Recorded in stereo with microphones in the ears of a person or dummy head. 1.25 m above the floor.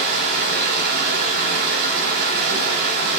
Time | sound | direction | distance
0.0 | running water | 55° right (ahead or behind) | 2.5 m